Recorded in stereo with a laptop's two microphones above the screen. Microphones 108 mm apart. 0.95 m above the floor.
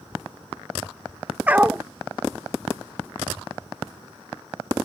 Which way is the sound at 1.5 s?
15° right (ahead or behind).